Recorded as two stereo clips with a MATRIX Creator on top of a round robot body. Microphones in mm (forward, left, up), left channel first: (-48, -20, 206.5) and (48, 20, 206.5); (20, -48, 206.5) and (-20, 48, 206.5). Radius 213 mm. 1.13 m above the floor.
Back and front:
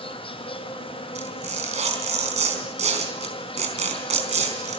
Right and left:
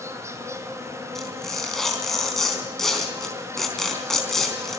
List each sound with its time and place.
0.0 s an insect: 175° left, 2.0 m
1.1 s tearing paper: 20° left, 3.5 m